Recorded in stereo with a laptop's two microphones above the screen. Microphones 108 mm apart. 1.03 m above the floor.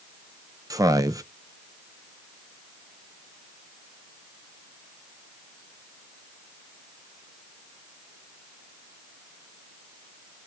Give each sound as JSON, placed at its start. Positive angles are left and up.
{"t": 0.7, "sound": "a man speaking", "side_deg": -30, "distance_m": 0.9}